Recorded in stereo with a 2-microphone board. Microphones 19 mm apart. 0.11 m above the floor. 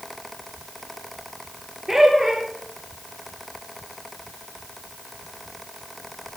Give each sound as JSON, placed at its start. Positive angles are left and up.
{"t": 1.9, "sound": "laughter", "side_deg": -20, "distance_m": 2.0}